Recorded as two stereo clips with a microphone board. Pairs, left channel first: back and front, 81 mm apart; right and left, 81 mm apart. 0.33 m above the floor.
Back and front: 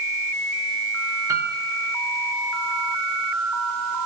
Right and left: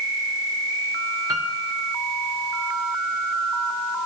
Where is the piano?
50° left, 2.5 m.